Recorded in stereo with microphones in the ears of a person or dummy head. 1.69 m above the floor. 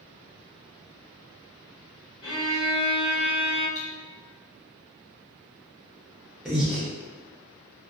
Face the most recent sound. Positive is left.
turn(degrees=-5)  # may be behind; listen again after turning